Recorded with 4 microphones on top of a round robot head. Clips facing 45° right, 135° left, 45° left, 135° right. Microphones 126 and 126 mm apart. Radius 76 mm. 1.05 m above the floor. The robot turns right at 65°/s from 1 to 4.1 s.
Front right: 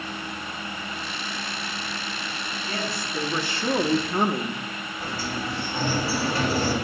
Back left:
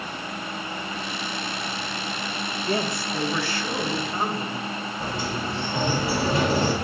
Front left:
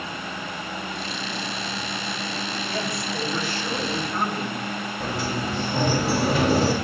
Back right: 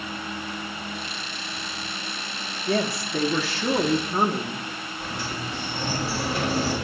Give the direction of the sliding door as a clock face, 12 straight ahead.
10 o'clock.